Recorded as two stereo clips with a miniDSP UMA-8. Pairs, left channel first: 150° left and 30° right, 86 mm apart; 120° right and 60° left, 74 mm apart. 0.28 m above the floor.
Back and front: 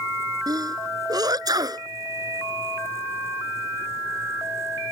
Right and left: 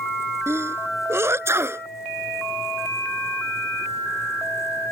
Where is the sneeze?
10° left.